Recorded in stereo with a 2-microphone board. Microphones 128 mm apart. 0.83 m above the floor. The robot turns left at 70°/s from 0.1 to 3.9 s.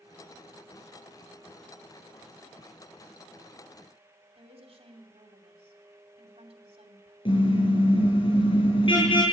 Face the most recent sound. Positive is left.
turn(degrees=45)  # may be behind; listen again after turning